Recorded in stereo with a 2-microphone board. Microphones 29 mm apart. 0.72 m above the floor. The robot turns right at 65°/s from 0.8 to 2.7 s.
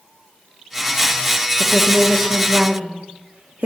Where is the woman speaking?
10° right (ahead or behind), 0.8 m; by 3.6 s 60° right (ahead or behind), 0.8 m.